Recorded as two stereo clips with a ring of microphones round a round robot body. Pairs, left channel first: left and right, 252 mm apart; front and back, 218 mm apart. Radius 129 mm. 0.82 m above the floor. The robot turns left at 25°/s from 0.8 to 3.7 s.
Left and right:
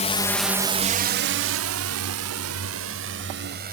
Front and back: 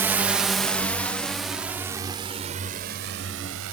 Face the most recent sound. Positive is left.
turn(degrees=-145)